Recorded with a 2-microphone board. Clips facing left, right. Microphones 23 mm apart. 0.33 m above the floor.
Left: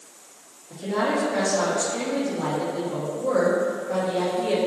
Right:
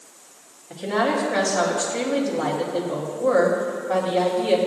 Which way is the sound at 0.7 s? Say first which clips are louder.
Right 2 dB; 45° right (ahead or behind).